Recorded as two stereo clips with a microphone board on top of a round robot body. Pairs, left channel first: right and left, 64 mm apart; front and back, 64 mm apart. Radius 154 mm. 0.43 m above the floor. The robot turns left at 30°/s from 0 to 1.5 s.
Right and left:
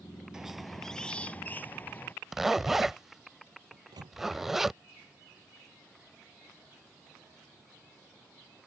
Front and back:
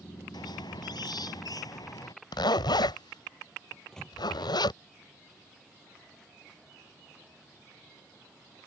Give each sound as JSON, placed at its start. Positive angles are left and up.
{"t": 0.3, "sound": "a squeak", "azimuth_deg": 10}
{"t": 2.3, "sound": "a zipper", "azimuth_deg": 5}
{"t": 3.7, "sound": "a microwave", "azimuth_deg": 80}